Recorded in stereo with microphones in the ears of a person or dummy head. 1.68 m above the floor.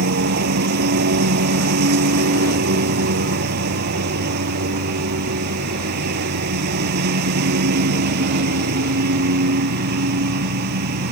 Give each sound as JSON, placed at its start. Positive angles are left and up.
{"t": 0.0, "sound": "a lawn mower", "side_deg": -60}